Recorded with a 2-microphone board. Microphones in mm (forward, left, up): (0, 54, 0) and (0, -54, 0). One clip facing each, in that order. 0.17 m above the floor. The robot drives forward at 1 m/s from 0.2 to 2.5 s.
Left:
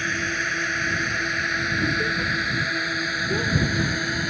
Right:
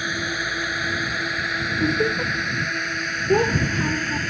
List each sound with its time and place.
0.0 s a drone: 10° right (ahead or behind); by 4.3 s 10° left (ahead or behind)
1.8 s laughter: 45° right (ahead or behind)
3.3 s a child speaking: 75° right (ahead or behind)